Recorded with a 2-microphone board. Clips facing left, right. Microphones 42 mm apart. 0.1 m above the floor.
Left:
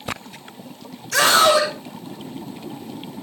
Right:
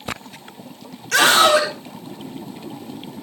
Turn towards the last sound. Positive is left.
turn(degrees=-65)  # may be behind; listen again after turning